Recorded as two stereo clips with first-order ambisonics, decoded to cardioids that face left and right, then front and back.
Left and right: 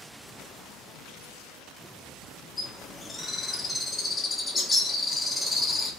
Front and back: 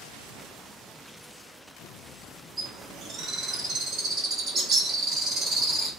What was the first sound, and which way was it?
A bird, 160° left.